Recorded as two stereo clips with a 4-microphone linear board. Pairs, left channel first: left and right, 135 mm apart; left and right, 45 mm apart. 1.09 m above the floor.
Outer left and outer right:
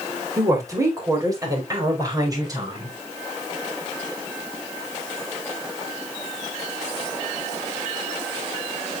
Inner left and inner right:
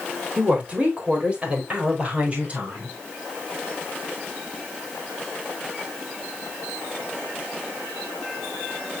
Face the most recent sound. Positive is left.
turn(degrees=-30)  # may be behind; listen again after turning